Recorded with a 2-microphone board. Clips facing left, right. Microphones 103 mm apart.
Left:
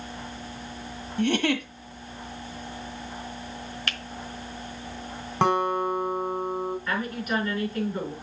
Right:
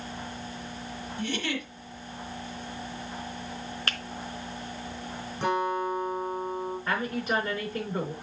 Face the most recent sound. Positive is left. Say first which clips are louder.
# even
turn(degrees=-30)  # may be behind; listen again after turning